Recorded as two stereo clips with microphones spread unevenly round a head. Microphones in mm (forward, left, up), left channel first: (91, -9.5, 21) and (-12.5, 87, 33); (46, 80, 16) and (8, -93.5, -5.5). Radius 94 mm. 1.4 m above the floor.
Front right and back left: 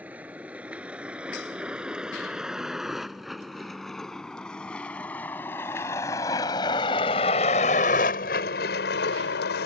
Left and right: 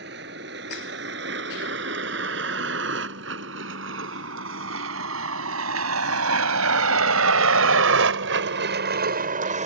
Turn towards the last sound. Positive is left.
turn(degrees=-50)